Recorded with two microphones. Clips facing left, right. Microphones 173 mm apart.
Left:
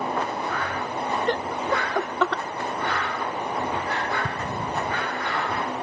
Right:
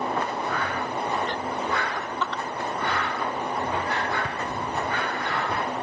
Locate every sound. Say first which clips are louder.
1.3 s laughter: left 3 dB; 50° left (ahead or behind); by 2.4 s 85° left
4.2 s an explosion: left 1 dB; 35° left (ahead or behind)